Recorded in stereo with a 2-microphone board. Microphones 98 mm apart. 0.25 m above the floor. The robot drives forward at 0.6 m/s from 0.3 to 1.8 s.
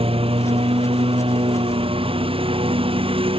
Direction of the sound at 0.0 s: 75° right (ahead or behind).